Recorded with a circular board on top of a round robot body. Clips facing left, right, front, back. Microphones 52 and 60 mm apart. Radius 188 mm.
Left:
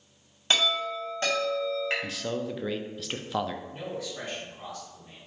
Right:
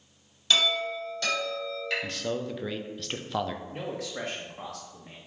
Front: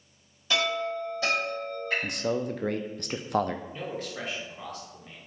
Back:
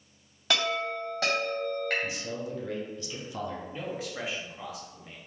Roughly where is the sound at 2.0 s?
Ahead.